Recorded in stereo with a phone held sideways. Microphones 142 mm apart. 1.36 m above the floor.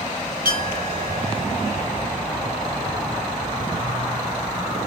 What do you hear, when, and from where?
0.5 s a clink: 80° right, 2.5 m